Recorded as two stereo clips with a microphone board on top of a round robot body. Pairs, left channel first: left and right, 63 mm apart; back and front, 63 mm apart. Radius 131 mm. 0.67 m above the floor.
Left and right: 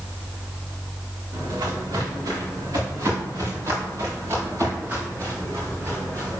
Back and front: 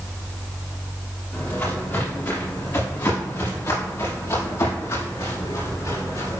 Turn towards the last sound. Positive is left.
turn(degrees=-145)